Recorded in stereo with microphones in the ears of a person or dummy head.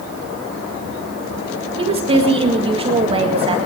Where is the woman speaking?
25° right (ahead or behind), 1.7 m.